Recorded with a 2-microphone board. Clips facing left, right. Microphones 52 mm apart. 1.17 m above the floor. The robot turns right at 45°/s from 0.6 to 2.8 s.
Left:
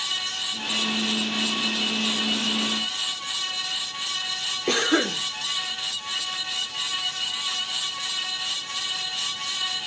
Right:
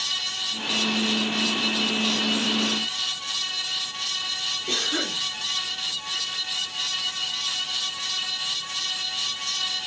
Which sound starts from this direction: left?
A cough, at 4.7 s.